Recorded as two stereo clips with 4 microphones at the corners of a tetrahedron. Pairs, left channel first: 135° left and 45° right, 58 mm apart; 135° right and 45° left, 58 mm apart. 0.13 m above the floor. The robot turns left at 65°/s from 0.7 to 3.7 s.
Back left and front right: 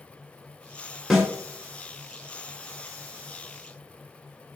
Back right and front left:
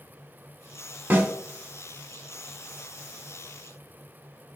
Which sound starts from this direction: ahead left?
A snare drum, at 1.1 s.